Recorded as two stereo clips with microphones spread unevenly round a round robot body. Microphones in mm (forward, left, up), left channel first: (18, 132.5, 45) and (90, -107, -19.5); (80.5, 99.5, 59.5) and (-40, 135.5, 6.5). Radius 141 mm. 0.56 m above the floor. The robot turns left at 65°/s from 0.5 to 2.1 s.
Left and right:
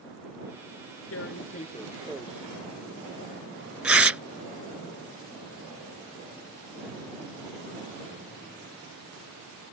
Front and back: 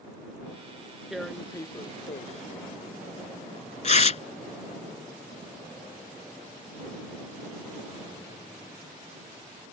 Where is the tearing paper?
75° left; by 4.2 s 15° left.